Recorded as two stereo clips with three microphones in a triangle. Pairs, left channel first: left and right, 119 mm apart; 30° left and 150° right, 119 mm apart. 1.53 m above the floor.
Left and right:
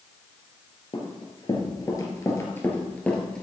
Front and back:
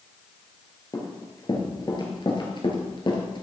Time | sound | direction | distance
0.9 | running footsteps | 70° left | 2 m